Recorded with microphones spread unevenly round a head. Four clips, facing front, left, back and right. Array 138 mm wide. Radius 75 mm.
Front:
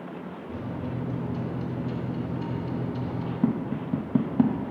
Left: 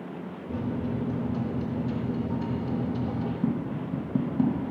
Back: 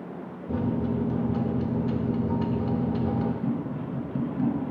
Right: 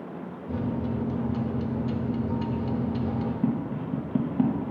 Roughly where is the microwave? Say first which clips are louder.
Right 1 dB, back 8 dB; behind.